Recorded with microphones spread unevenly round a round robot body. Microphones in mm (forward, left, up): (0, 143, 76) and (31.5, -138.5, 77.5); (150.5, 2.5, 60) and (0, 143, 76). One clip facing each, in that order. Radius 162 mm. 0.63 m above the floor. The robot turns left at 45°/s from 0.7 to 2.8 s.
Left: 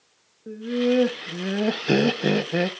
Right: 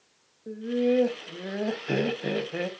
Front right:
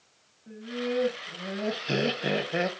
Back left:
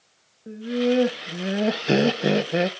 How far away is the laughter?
About 1.1 m.